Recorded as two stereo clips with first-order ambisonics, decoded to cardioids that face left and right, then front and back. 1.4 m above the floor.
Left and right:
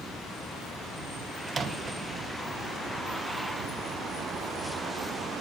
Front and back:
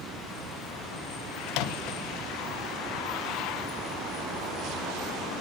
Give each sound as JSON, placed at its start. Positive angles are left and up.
{"t": 1.5, "sound": "a microwave", "azimuth_deg": -20, "distance_m": 0.6}